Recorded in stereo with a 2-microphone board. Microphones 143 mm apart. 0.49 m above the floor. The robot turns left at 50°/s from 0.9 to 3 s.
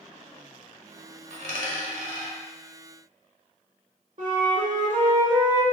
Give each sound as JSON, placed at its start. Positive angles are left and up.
{"t": 1.3, "sound": "a dropped coin", "side_deg": -60, "distance_m": 1.2}
{"t": 4.2, "sound": "a flute", "side_deg": -65, "distance_m": 1.1}